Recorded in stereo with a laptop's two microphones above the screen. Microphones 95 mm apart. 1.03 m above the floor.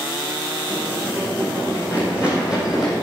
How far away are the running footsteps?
About 3.5 m.